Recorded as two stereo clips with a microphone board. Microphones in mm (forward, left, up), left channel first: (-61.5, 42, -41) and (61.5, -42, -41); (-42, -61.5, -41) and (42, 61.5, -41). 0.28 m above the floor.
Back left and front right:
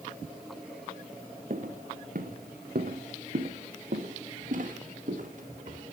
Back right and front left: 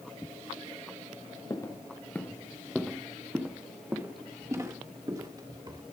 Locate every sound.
1.5 s footsteps: 60° right, 1.4 m; by 5.8 s 5° right, 3 m